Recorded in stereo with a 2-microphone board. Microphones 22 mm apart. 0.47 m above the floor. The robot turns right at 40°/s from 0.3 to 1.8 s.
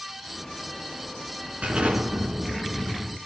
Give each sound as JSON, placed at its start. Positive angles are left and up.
{"t": 1.6, "sound": "an explosion", "side_deg": -85, "distance_m": 3.5}